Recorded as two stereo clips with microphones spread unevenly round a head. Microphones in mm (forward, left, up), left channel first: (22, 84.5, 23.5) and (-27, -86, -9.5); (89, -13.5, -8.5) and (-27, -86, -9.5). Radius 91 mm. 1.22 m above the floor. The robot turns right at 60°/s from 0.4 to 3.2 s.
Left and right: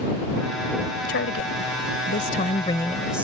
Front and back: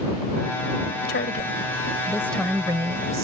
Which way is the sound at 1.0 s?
40° left.